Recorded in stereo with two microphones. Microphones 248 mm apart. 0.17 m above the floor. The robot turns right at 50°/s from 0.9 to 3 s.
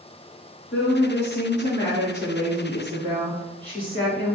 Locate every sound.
0.7 s a woman speaking: 100° left, 2.5 m; by 4.3 s 155° right, 2.5 m